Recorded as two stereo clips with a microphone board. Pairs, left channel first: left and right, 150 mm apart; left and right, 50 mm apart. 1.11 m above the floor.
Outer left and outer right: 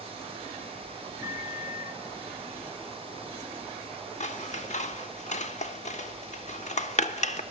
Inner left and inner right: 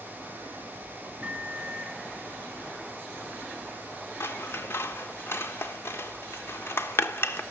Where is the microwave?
20° right (ahead or behind), 1.0 m.